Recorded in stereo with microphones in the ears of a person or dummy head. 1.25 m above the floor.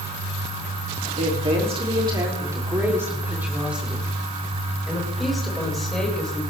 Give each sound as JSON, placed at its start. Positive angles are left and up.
{"t": 1.2, "sound": "a woman speaking", "side_deg": -35, "distance_m": 3.0}